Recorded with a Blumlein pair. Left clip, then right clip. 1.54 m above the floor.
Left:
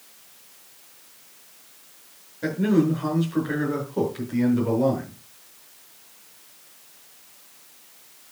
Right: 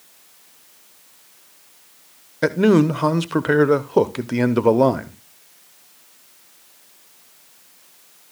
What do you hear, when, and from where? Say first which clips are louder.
2.4 s a man speaking: right 6 dB; 35° right, 0.9 m